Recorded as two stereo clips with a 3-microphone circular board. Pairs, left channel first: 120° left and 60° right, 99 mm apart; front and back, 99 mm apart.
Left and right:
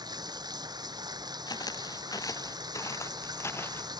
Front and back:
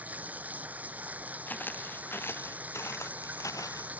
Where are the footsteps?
70° left; by 3.9 s 50° left.